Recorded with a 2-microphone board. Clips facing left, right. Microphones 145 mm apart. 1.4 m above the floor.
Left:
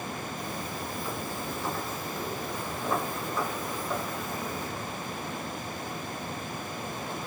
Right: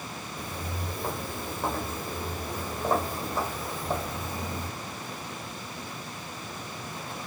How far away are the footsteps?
About 2.5 m.